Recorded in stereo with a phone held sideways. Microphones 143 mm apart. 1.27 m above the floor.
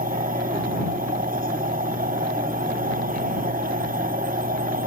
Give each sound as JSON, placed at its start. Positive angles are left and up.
{"t": 0.0, "sound": "a machine running", "side_deg": -90}